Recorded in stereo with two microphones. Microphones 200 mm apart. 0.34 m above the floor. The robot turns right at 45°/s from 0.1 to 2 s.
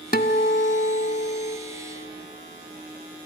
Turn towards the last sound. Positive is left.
turn(degrees=130)